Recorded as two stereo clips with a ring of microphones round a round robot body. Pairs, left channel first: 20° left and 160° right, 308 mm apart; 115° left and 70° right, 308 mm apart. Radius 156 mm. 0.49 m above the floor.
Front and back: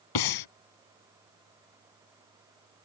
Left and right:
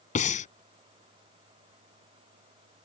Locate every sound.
0.1 s breathing: 45° left